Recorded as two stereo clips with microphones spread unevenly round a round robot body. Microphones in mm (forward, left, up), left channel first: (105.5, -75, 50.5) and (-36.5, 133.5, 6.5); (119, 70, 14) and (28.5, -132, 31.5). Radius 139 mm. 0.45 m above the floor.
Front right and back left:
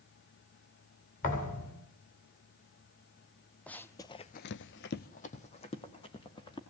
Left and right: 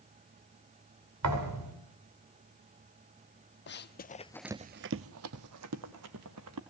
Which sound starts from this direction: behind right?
A thud, at 1.2 s.